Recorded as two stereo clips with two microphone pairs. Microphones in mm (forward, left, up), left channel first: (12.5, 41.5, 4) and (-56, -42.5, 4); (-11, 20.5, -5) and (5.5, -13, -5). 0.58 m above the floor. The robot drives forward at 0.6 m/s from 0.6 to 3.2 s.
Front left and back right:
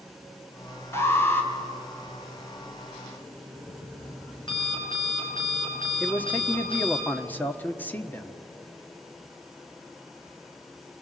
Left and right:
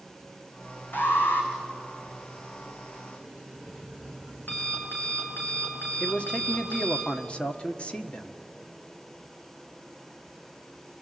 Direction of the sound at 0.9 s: 115° left.